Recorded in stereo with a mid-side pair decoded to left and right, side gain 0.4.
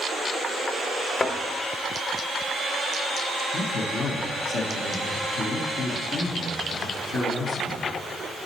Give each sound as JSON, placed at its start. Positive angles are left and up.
{"t": 1.2, "sound": "a thud", "azimuth_deg": 35, "distance_m": 1.2}
{"t": 3.5, "sound": "a man speaking", "azimuth_deg": 65, "distance_m": 1.2}